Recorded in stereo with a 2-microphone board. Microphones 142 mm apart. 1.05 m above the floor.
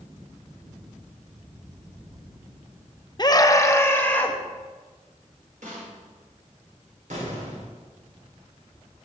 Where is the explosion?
70° right (ahead or behind), 3.5 m.